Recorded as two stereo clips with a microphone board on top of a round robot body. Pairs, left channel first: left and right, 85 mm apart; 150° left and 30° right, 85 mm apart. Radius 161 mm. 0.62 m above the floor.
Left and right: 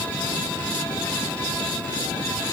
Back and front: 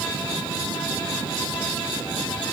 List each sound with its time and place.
Only background noise.